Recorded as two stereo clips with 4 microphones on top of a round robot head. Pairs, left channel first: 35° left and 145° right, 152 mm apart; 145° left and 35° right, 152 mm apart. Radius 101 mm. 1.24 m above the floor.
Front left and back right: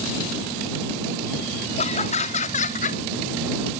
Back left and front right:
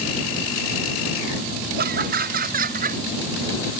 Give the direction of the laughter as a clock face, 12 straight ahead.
12 o'clock.